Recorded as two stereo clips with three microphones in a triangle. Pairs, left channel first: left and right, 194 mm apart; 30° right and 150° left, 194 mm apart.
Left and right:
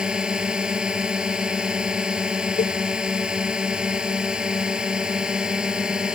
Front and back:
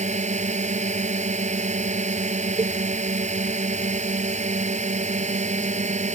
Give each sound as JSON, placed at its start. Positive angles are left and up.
{"t": 0.0, "sound": "a drone", "azimuth_deg": -175}
{"t": 2.6, "sound": "a cowbell", "azimuth_deg": 100}